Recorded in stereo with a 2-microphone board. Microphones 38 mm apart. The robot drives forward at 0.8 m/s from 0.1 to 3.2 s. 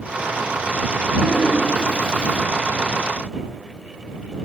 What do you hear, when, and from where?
1.2 s a toilet flushing: 20° right (ahead or behind), 1.4 m; by 2.4 s 15° right (ahead or behind), 1.7 m